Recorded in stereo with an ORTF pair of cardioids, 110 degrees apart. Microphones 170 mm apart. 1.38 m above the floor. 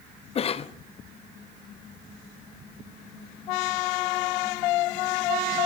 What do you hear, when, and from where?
0.3 s a cough: 35° left, 0.7 m